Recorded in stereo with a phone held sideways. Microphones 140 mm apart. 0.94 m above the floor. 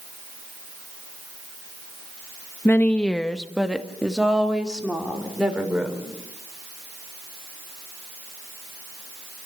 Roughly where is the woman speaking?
Centre.